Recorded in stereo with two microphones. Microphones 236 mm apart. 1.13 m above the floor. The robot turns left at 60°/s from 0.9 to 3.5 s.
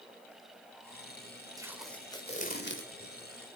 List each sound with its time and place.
1.6 s tape being pulled: 165° right, 2.5 m; by 3.1 s 105° left, 2.5 m